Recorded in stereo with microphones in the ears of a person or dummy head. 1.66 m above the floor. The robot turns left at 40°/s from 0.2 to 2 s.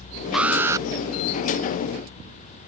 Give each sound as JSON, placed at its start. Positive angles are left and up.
{"t": 0.3, "sound": "an alarm", "side_deg": -5}